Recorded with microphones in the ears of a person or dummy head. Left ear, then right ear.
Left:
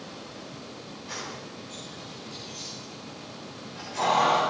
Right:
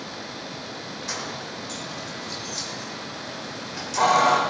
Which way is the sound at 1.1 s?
55° right (ahead or behind).